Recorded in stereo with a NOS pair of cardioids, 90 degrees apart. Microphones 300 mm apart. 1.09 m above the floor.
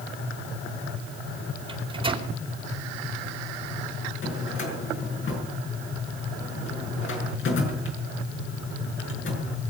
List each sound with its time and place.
1.7 s a microwave: 20° right, 4 m
4.2 s a drawer: 45° left, 5.5 m